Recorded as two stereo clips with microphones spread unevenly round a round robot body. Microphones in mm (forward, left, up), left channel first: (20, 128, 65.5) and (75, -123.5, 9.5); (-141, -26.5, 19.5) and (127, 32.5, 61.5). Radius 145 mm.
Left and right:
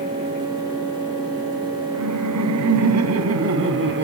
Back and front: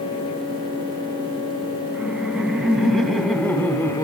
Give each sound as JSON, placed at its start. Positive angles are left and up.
{"t": 1.9, "sound": "laughter", "azimuth_deg": -75, "distance_m": 4.0}